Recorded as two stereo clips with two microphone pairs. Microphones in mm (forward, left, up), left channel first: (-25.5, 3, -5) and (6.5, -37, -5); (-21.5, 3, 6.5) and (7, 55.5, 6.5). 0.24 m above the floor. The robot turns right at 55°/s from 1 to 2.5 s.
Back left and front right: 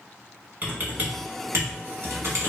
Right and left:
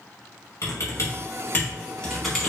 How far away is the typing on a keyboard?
About 0.9 m.